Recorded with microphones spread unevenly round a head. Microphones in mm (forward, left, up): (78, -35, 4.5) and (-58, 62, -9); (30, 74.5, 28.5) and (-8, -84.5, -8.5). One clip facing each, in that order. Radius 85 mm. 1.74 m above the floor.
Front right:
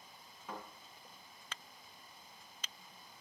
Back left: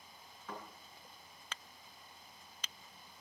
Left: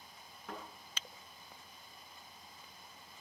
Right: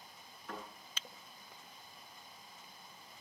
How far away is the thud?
About 9.5 m.